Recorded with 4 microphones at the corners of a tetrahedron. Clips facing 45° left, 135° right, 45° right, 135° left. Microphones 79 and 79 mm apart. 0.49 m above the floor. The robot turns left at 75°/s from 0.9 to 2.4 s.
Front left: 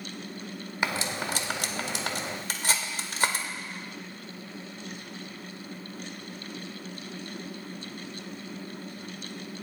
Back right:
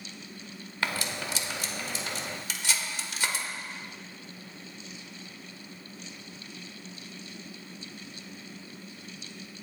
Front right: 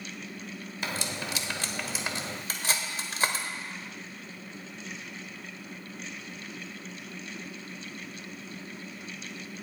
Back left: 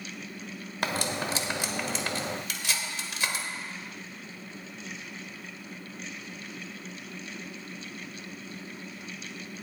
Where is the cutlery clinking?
115° left, 0.9 m; by 3.5 s 5° left, 0.9 m.